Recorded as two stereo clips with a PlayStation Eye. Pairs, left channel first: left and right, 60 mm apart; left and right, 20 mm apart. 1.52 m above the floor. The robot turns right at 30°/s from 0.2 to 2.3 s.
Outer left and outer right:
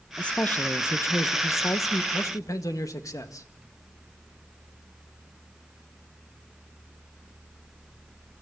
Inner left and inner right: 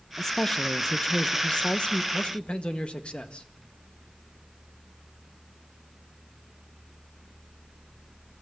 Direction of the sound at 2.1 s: 60° left (ahead or behind).